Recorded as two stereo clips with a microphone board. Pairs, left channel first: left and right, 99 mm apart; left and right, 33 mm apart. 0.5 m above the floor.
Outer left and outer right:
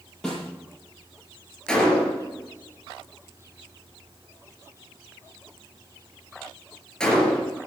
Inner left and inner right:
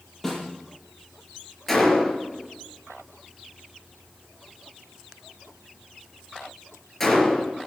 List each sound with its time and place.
0.2 s a snare drum: 5° left (ahead or behind), 6.5 m
1.7 s a gunshot: 10° left (ahead or behind), 3.5 m